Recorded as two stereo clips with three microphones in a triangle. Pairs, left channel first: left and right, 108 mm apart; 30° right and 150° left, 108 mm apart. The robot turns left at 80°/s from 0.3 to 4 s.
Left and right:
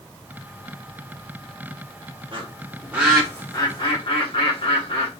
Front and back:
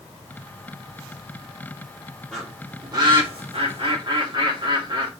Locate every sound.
2.3 s a bird: 110° right, 1.4 m; by 5.1 s 115° left, 1.4 m